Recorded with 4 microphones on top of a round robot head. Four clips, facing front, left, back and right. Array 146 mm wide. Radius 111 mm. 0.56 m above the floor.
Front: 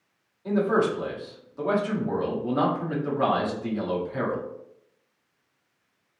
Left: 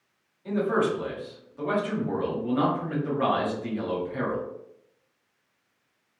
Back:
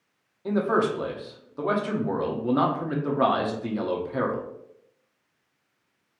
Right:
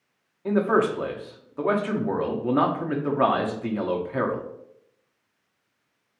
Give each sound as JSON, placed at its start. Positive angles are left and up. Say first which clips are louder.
{"t": 0.5, "sound": "a man speaking", "louder": "right 3 dB, front 1 dB", "azimuth_deg": -115, "distance_m": 0.9}